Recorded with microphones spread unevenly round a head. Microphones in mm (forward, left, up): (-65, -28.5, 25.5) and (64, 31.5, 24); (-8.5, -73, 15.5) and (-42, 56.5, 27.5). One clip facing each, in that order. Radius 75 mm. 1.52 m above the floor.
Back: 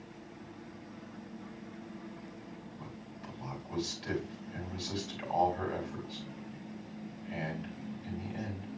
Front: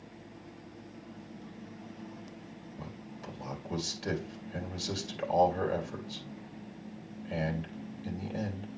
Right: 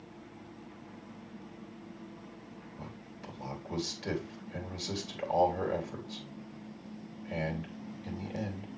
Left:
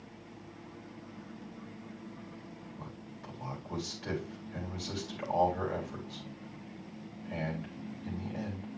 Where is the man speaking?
10° right, 2.5 m.